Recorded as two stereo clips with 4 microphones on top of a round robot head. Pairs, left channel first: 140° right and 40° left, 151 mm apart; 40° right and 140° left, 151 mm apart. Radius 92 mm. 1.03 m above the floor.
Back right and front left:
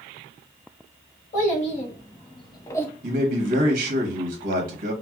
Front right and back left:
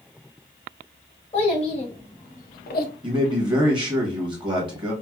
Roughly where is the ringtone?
I don't hear a ringtone.